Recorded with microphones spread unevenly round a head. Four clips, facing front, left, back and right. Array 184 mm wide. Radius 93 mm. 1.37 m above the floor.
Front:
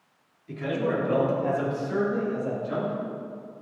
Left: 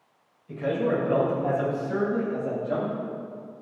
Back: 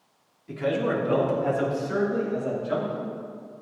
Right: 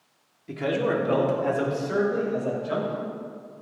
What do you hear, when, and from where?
0.5 s a man speaking: 90° right, 3 m; by 3.0 s 95° right, 6.5 m